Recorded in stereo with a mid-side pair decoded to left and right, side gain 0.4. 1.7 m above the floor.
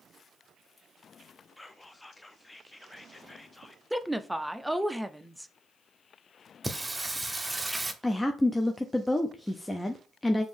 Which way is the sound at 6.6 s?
15° right.